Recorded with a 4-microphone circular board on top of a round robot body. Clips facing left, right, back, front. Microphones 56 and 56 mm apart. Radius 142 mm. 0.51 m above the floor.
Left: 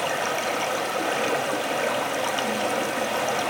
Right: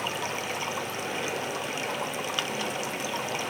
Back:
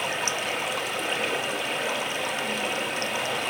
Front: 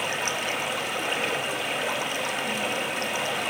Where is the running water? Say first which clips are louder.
Left 6 dB, even; 90° left, 0.9 m.